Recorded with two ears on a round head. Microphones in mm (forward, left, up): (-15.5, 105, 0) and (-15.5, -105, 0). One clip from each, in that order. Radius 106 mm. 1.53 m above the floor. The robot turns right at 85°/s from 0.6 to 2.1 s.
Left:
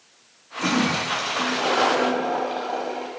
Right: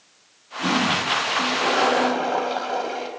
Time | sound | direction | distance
0.6 | a toilet flushing | 85° left | 5 m